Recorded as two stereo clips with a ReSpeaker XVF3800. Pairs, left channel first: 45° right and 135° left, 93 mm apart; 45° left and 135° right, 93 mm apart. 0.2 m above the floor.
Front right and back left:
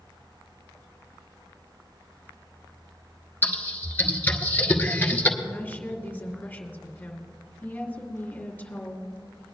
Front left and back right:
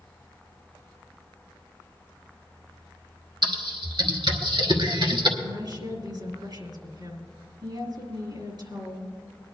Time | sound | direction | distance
3.4 | typing on a keyboard | 115° right | 1.2 m
5.4 | a woman speaking | 115° right | 3 m